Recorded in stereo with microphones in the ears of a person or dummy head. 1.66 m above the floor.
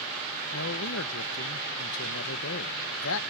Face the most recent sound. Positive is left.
turn(degrees=75)  # may be behind; listen again after turning